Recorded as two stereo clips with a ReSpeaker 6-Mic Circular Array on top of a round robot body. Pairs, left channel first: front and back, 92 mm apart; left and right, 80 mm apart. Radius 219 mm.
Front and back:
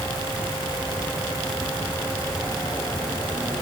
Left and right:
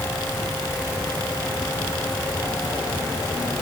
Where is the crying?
I don't hear crying.